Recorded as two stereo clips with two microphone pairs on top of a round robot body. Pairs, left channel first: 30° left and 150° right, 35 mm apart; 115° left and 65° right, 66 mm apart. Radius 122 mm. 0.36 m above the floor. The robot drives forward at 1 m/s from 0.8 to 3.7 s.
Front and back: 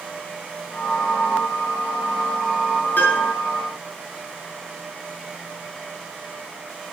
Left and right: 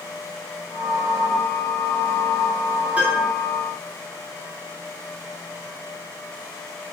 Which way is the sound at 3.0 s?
5° left.